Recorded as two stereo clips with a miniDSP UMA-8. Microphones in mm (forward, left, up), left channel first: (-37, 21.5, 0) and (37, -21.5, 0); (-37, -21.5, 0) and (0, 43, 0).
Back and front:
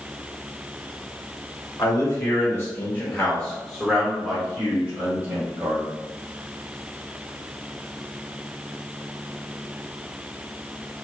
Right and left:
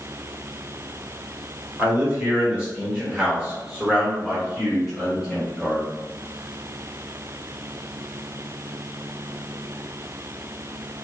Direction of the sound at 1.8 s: 115° left.